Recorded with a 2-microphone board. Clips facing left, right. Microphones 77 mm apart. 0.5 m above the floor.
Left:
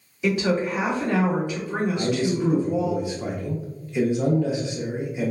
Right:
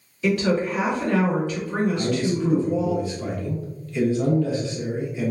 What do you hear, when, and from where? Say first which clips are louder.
0.2 s a woman speaking: right 1 dB; 15° left (ahead or behind), 1.5 m
1.9 s a man speaking: even; 20° left (ahead or behind), 0.7 m